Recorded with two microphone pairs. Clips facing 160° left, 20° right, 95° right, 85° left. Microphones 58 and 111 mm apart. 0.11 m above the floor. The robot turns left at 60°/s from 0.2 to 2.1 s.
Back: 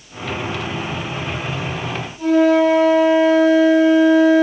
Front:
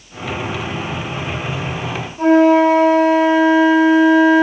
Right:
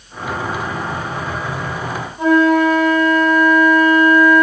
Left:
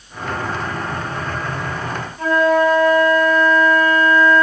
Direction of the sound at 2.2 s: 25° right.